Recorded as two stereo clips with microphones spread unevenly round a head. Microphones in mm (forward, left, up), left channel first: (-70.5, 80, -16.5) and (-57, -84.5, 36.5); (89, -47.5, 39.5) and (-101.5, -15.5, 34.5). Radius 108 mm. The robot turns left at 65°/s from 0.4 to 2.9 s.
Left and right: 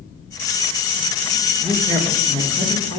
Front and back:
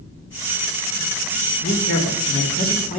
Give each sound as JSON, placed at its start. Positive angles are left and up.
{"t": 1.6, "sound": "a woman speaking", "azimuth_deg": 25, "distance_m": 3.0}